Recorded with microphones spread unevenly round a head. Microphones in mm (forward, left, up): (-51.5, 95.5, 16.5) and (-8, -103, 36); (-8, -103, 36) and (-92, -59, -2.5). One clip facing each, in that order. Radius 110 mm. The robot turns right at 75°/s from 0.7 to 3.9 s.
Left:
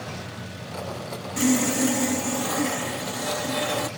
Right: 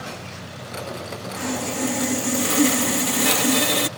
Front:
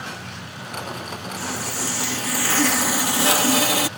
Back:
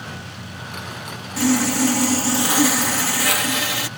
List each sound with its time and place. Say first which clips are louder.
1.4 s sawing: left 6 dB, back 14 dB; 145° left; by 3.9 s 25° right